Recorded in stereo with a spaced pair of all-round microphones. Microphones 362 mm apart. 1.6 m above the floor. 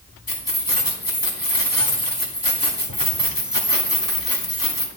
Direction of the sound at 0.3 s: 75° left (ahead or behind).